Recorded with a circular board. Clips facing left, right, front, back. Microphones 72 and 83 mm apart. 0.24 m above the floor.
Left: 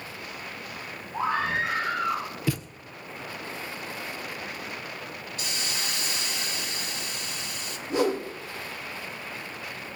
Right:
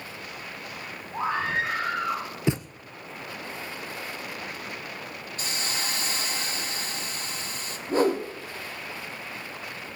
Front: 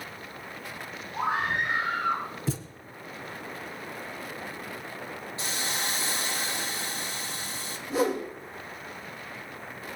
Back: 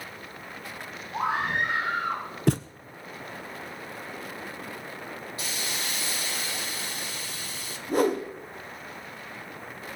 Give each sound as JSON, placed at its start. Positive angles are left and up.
{"t": 1.1, "sound": "a scream", "azimuth_deg": -170, "distance_m": 9.5}
{"t": 2.5, "sound": "a thud", "azimuth_deg": -155, "distance_m": 1.0}
{"t": 5.4, "sound": "a hiss", "azimuth_deg": -55, "distance_m": 2.5}
{"t": 7.9, "sound": "a whoosh", "azimuth_deg": -145, "distance_m": 3.0}